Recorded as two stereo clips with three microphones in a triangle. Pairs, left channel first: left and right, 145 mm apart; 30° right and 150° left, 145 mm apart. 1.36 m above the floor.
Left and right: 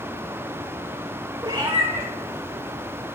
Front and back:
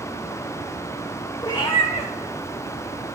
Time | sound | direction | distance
1.4 | a cat meowing | 65° right | 1.1 m